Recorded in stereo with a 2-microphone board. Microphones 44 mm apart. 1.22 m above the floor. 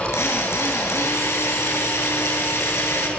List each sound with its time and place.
0.1 s a drill: 85° left, 8 m